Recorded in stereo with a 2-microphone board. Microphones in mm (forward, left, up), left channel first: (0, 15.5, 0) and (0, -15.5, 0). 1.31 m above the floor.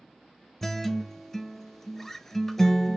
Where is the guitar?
10° left (ahead or behind), 0.7 m.